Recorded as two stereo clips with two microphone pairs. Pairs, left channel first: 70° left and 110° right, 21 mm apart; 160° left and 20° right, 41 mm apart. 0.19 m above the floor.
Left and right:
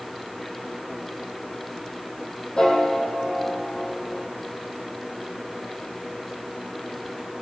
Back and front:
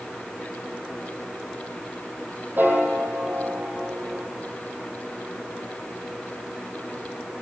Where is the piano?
20° left, 5 m.